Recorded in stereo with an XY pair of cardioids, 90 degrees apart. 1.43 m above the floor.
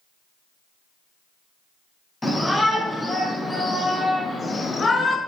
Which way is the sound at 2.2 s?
15° left.